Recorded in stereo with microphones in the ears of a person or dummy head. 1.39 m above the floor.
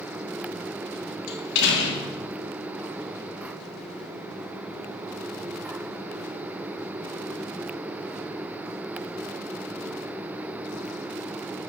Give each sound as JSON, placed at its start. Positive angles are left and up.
{"t": 1.3, "sound": "a door slam", "side_deg": 65, "distance_m": 2.5}